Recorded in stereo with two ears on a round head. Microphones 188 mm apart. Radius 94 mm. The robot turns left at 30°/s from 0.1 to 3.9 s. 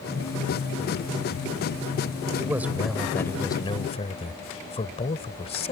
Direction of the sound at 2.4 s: 165° right.